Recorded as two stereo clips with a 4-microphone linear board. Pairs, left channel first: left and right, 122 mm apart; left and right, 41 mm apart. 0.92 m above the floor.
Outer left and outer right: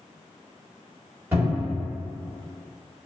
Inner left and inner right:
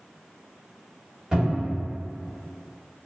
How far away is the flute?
No flute in this recording.